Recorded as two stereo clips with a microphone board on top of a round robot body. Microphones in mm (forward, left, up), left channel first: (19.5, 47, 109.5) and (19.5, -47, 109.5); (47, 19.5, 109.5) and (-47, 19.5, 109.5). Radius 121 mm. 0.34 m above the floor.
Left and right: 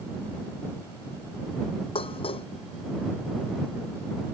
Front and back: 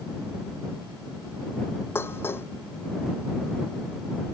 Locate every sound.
1.9 s dishes clattering: 65° left